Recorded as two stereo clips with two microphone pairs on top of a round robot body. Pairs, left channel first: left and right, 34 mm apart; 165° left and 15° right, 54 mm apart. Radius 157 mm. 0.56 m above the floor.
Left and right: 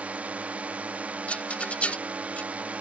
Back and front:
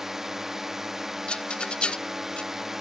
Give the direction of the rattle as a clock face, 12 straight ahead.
9 o'clock.